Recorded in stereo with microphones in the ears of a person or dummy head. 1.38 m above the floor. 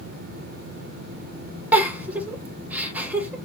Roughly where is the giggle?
Centre.